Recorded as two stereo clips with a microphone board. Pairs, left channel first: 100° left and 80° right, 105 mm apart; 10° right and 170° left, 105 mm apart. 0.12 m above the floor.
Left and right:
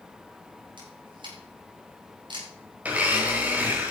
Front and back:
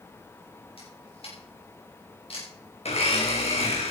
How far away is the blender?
About 3.5 m.